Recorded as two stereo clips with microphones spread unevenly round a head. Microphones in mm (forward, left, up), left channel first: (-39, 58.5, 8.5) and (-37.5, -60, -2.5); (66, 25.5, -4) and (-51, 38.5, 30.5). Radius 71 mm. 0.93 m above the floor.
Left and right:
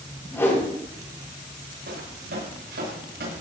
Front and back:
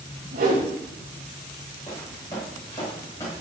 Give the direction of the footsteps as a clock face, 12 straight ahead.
3 o'clock.